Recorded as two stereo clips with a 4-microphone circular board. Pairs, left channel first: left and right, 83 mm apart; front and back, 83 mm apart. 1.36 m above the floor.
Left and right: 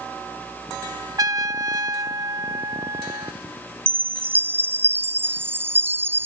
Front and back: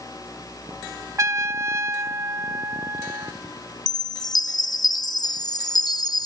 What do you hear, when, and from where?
1.2 s a trumpet: 130° right
3.9 s a chime: 25° right